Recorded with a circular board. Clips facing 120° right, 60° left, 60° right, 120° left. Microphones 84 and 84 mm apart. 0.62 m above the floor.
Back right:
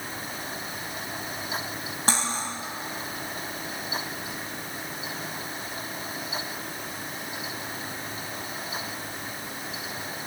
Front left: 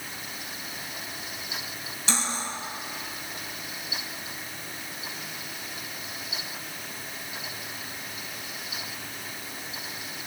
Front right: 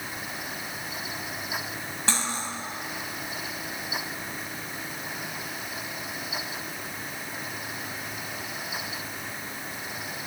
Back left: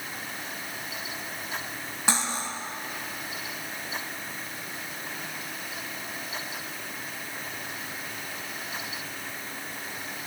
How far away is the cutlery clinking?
About 2 m.